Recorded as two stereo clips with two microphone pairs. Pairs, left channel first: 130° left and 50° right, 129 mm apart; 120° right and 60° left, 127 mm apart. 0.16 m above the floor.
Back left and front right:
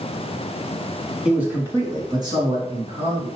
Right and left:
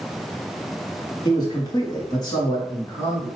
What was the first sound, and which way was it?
A man speaking, 125° right.